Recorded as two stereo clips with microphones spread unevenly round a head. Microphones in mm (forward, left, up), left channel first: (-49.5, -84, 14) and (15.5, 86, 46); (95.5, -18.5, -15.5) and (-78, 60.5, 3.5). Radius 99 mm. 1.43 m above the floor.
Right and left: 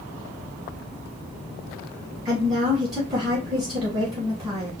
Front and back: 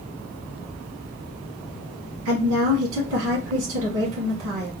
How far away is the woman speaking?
About 1.4 m.